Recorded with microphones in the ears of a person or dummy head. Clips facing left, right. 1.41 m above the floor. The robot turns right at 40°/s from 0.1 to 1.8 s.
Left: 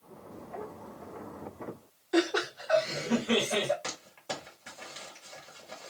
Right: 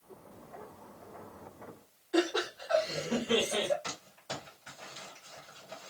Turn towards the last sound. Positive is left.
turn(degrees=75)  # may be behind; listen again after turning